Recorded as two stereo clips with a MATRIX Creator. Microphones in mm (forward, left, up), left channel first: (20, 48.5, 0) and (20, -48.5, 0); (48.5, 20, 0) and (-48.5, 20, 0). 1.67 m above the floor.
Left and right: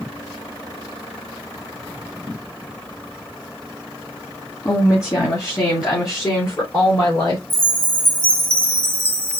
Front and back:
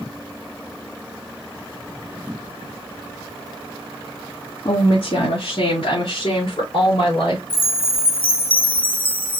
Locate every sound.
4.7 s a woman speaking: 30° left, 1.4 m; by 7.4 s 35° left, 3 m
7.5 s a chime: 25° right, 0.8 m